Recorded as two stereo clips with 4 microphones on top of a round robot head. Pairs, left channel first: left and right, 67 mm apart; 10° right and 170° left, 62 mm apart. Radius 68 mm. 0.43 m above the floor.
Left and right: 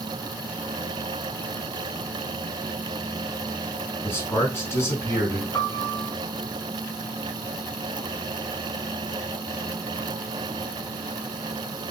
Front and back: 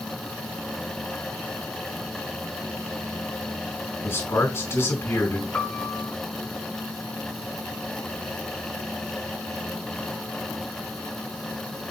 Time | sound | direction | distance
4.0 | a man speaking | 35° left | 4 m
5.5 | a piano | 45° left | 1.8 m